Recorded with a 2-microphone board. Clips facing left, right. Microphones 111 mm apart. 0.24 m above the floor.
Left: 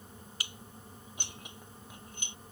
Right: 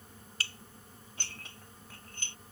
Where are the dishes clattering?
15° left (ahead or behind).